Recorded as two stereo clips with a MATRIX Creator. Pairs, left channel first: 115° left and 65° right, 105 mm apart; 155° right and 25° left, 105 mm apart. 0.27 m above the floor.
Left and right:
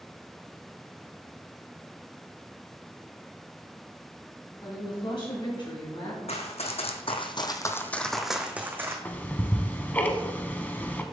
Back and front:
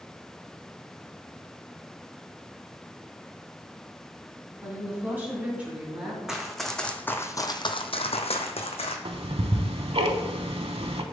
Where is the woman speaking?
90° left, 2.5 m; by 6.2 s 105° left, 2 m.